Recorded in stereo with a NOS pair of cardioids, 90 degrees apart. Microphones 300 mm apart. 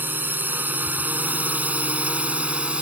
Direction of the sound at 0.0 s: 5° right.